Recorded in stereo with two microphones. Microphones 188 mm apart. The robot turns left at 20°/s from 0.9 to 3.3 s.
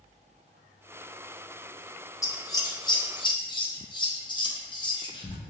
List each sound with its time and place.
2.2 s scissors: 15° left (ahead or behind), 0.7 m; by 5.3 s 20° left (ahead or behind), 0.7 m